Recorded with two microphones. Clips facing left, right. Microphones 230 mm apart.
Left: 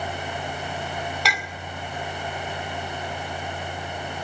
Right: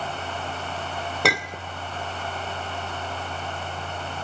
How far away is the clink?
About 1.8 m.